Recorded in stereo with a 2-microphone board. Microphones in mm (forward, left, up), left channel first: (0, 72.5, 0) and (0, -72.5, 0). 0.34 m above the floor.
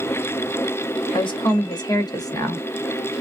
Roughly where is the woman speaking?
Left.